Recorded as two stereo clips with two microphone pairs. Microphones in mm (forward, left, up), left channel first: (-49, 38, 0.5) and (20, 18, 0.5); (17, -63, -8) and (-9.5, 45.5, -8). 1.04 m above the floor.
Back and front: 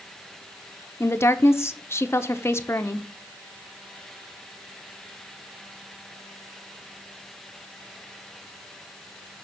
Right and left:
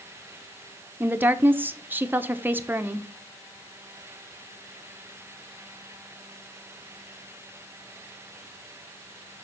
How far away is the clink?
No clink in this recording.